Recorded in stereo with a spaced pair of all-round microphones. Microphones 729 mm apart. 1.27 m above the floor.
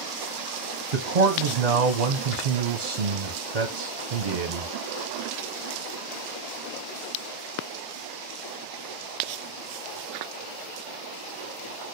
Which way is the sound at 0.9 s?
65° right (ahead or behind).